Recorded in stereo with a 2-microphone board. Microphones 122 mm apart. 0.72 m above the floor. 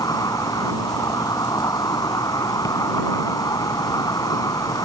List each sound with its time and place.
0.0 s an insect: 30° left (ahead or behind)